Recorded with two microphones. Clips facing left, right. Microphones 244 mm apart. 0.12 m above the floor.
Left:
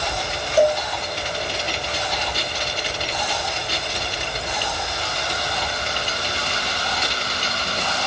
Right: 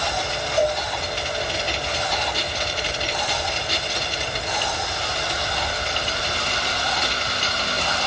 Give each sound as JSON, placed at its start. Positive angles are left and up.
{"t": 0.6, "sound": "a cowbell", "side_deg": 70, "distance_m": 0.7}